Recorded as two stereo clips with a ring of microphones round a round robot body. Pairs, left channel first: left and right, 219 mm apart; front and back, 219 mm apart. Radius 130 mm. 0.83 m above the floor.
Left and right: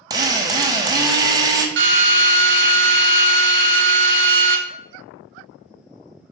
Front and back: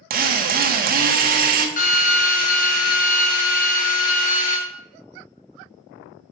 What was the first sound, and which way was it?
A drill, 155° right.